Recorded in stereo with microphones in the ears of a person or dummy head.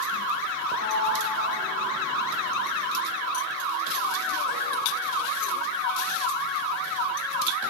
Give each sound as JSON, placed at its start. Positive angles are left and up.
{"t": 0.7, "sound": "a sliding door", "side_deg": 50, "distance_m": 1.0}